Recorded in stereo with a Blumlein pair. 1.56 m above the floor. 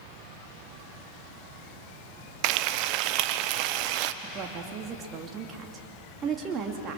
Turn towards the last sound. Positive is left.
turn(degrees=-25)